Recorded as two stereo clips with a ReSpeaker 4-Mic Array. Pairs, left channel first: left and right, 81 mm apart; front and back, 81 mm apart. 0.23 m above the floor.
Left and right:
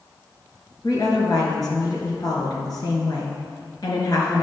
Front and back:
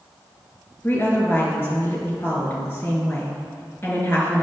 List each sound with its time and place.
0.8 s a woman speaking: 65° left, 2.5 m